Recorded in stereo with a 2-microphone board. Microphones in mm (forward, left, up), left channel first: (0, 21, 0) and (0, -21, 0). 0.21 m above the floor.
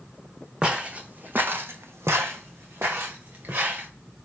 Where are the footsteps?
25° right (ahead or behind), 0.8 m; by 3.9 s 45° right (ahead or behind), 1.3 m.